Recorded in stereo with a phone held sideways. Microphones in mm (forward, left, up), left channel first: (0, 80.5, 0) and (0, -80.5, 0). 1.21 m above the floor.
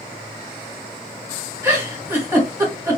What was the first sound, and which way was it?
A giggle, 15° right (ahead or behind).